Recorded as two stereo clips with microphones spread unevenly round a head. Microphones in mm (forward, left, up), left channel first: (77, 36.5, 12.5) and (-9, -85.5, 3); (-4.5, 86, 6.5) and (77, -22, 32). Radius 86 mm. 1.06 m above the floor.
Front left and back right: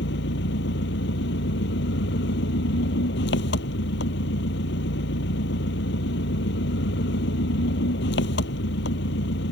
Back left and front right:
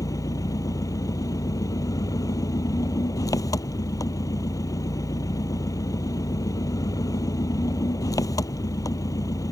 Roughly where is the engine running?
Ahead left.